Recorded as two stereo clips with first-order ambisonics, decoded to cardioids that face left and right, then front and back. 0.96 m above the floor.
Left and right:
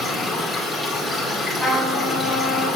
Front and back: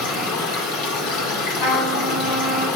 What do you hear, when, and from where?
0.0 s running water: 5° left, 2.5 m
1.6 s a trumpet: 10° left, 3 m